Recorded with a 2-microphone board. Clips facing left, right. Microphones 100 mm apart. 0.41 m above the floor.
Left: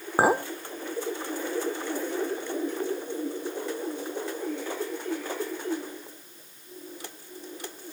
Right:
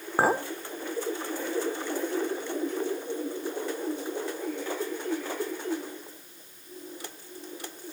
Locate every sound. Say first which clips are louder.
0.2 s a clink: left 2 dB; 10° left (ahead or behind), 0.7 m